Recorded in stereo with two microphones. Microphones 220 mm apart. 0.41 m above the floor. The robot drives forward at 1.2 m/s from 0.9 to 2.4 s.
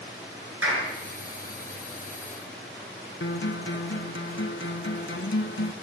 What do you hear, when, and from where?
0.6 s a clap: 80° right, 5 m
3.2 s a guitar: 60° left (ahead or behind), 0.8 m